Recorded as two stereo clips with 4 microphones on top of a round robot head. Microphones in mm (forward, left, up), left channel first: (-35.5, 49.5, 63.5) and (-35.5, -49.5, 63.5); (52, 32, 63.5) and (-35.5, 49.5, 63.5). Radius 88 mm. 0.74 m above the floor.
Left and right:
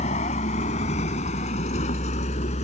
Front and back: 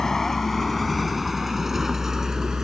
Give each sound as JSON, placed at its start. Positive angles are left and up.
{"t": 0.0, "sound": "a vehicle", "azimuth_deg": 75}